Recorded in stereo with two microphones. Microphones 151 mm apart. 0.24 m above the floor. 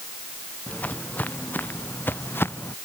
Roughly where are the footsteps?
Centre.